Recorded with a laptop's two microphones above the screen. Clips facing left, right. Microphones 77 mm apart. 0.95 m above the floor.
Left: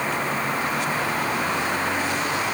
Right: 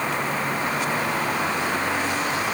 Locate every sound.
Only background noise.